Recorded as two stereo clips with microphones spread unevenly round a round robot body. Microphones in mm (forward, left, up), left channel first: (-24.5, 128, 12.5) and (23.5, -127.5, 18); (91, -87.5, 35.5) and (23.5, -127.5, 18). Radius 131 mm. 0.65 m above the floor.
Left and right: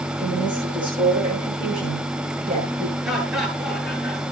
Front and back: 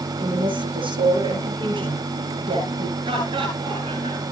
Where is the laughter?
170° right, 10 m.